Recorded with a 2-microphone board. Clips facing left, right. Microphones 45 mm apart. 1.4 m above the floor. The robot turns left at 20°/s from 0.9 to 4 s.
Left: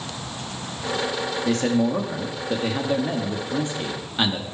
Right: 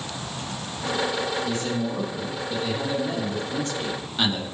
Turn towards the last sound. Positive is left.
turn(degrees=15)